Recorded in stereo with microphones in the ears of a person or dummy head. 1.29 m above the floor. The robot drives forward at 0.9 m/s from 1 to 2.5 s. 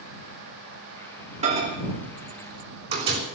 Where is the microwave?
35° right (ahead or behind), 4 m; by 3.2 s 25° right (ahead or behind), 4.5 m.